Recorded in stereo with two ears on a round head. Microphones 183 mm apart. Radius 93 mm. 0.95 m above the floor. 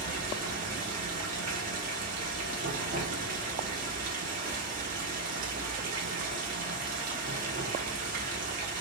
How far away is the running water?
About 0.9 m.